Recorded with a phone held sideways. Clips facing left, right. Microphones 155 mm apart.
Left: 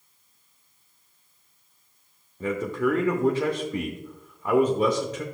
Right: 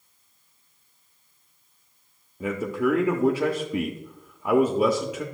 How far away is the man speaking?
About 0.7 m.